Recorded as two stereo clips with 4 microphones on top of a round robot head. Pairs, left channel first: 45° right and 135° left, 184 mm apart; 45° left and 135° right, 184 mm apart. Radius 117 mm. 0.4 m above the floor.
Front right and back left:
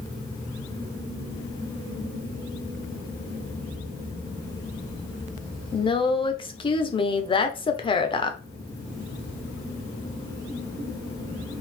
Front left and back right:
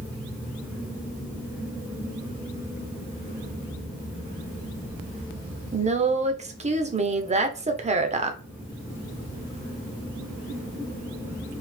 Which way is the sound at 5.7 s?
100° right.